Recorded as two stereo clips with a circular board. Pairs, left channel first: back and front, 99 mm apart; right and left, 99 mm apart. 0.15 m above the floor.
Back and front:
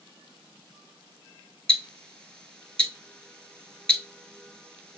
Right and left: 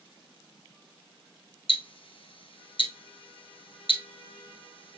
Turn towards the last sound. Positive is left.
turn(degrees=-100)